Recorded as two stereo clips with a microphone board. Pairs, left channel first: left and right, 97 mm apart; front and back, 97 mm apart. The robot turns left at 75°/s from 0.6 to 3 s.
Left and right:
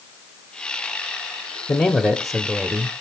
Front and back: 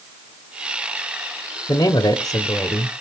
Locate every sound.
1.7 s a man speaking: 40° left, 1.5 m; by 2.9 s 50° right, 1.5 m